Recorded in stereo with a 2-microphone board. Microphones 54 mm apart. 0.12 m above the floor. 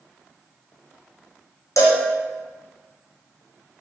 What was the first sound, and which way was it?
A cowbell, 85° left.